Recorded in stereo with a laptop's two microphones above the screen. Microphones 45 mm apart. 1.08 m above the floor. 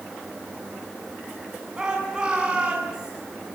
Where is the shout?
15° right (ahead or behind), 8 m.